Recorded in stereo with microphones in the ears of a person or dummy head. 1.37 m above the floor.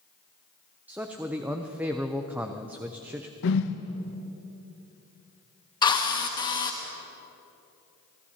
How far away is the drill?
About 0.9 m.